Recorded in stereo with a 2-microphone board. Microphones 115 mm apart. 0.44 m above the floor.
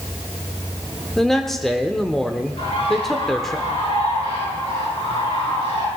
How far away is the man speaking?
About 0.8 m.